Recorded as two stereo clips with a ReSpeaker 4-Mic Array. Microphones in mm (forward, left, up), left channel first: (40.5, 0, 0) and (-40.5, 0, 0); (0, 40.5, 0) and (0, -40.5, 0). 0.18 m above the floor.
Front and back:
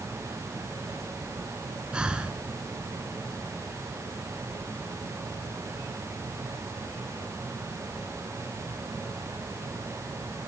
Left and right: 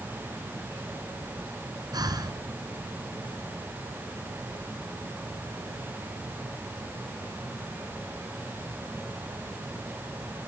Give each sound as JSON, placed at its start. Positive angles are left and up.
{"t": 1.9, "sound": "breathing", "azimuth_deg": -105, "distance_m": 2.5}